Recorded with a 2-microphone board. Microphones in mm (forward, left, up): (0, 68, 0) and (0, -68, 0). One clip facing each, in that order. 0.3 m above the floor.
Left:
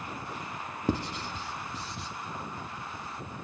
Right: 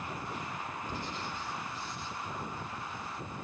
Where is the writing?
70° left (ahead or behind), 0.7 m.